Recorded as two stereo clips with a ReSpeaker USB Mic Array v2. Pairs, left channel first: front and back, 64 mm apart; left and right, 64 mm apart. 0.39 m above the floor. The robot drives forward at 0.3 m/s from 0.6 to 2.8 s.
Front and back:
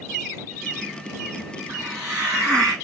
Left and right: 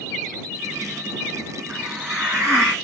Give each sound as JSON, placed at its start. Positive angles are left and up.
{"t": 1.7, "sound": "a hiss", "azimuth_deg": -145, "distance_m": 3.5}